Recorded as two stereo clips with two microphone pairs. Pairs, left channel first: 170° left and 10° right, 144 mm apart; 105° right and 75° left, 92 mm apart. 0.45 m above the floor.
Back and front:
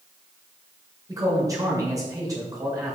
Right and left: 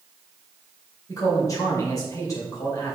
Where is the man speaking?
65° right, 2 m.